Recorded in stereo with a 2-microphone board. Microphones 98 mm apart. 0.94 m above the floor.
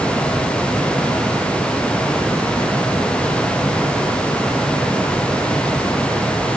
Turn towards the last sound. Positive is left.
No sound to turn to.